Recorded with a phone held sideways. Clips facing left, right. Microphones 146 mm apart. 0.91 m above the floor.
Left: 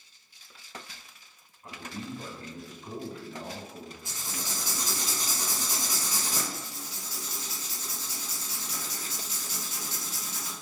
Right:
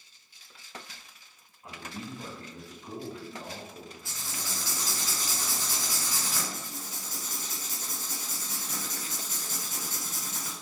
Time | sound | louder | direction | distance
1.6 | a man speaking | left 1 dB | 10° right (ahead or behind) | 1.4 m
4.0 | writing | left 2 dB | 20° left (ahead or behind) | 0.9 m
6.5 | writing | even | 50° right (ahead or behind) | 0.8 m